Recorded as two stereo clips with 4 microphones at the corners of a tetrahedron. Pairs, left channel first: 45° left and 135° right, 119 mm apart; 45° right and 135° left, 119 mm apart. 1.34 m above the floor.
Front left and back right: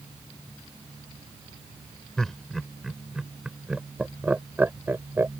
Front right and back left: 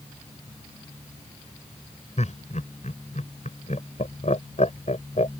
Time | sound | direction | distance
2.2 | laughter | 40° right | ?